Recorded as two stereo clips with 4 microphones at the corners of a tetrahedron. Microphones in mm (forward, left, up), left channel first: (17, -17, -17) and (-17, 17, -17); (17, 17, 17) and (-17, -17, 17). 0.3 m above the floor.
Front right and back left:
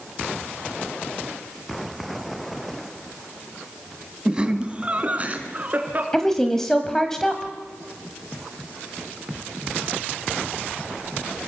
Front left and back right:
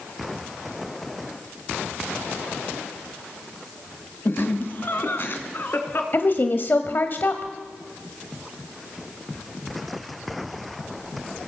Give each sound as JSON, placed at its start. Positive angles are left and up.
{"t": 4.2, "sound": "laughter", "azimuth_deg": 70, "distance_m": 1.6}
{"t": 6.1, "sound": "a woman speaking", "azimuth_deg": 35, "distance_m": 1.3}